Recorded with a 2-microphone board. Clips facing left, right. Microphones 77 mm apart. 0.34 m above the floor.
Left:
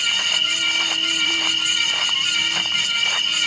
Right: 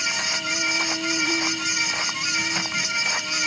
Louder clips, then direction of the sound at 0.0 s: Left 2 dB; 30° right (ahead or behind).